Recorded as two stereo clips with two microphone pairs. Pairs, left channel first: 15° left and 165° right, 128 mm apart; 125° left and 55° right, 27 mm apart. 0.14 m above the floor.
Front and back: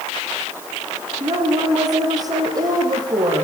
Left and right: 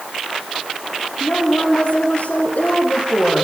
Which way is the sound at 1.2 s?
135° left.